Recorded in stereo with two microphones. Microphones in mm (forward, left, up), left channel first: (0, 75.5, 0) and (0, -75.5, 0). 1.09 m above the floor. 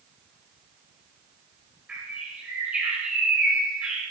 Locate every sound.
1.9 s a bird: 10° right (ahead or behind), 4 m